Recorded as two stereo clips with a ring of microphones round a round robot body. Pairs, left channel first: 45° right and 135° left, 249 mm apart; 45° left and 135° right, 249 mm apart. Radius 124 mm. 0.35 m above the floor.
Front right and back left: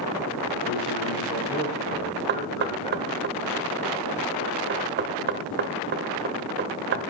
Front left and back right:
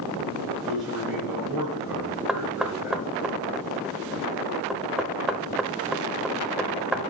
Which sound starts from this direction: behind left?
Knocking, at 2.3 s.